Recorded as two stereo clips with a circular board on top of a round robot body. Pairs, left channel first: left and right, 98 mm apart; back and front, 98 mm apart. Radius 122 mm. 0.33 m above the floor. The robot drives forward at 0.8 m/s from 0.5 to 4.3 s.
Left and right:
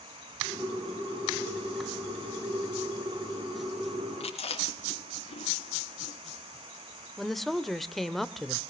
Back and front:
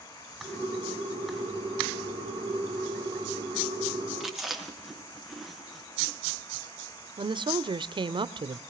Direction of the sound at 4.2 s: 85° left.